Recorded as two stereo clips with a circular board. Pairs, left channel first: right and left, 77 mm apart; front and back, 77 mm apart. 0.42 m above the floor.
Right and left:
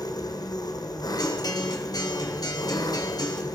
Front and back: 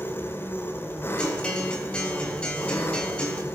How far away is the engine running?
About 1.4 m.